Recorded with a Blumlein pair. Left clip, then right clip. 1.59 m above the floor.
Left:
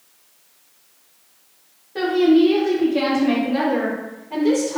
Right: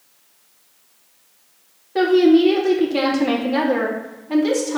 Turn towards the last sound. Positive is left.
turn(degrees=-55)